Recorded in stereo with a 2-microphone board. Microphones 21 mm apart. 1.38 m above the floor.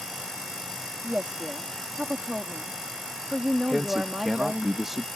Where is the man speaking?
25° right (ahead or behind).